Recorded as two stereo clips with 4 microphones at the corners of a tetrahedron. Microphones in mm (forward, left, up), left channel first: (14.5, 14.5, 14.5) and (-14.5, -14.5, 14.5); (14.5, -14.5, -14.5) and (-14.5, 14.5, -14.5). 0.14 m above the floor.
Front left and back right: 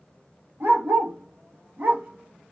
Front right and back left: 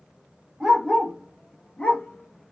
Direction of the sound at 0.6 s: 150° right.